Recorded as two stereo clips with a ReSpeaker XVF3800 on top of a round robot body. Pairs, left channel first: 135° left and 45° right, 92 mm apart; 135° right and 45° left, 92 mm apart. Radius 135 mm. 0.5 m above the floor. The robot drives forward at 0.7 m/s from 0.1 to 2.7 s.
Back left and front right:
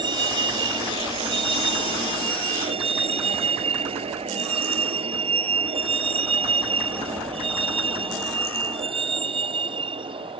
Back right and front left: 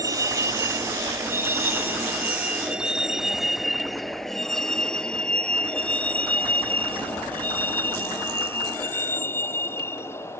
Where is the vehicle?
10° right; by 10.4 s 70° right.